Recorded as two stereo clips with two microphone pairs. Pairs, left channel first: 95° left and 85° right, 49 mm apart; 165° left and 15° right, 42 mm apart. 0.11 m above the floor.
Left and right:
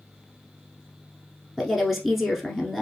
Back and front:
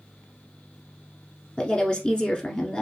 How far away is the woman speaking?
About 1.1 m.